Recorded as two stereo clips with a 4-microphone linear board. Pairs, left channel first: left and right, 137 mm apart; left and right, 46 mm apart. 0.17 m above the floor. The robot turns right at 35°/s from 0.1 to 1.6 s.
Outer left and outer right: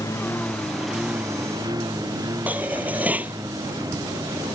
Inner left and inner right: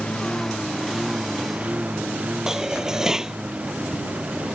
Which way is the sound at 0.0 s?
20° left (ahead or behind).